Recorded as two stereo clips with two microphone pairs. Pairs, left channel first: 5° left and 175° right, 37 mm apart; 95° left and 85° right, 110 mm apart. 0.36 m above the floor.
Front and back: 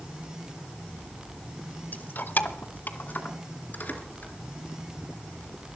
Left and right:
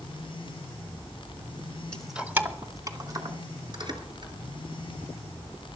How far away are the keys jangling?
About 1.0 m.